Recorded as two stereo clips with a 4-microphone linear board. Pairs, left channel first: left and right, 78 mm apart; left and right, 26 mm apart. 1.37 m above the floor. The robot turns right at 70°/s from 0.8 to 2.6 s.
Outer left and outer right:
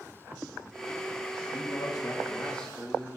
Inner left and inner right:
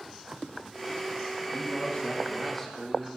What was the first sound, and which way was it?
A man speaking, 95° left.